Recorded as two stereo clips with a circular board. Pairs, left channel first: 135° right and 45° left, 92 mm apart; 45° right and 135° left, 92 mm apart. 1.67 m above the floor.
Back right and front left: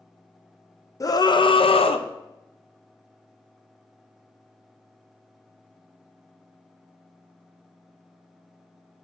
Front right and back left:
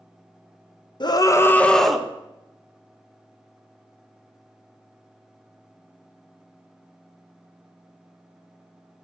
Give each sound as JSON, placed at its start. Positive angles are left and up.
{"t": 1.0, "sound": "a scream", "azimuth_deg": -80, "distance_m": 0.8}